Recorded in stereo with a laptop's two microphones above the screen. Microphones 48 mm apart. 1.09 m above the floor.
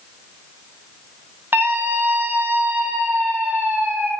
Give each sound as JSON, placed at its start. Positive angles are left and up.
{"t": 1.5, "sound": "a scream", "side_deg": -45, "distance_m": 7.0}